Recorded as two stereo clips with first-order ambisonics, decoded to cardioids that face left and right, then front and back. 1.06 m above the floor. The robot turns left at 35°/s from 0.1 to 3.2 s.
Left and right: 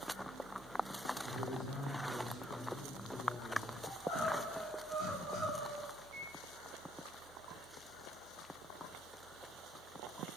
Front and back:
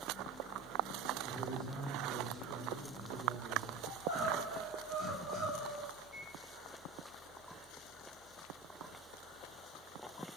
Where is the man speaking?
90° right, 0.9 m; by 3.7 s 155° right, 0.9 m.